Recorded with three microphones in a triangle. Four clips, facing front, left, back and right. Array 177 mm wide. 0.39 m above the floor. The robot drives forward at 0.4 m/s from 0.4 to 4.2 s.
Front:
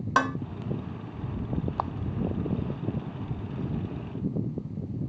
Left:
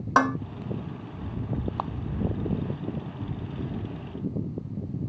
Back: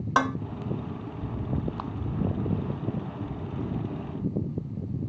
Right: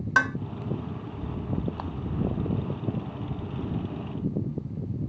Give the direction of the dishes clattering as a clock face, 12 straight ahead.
9 o'clock.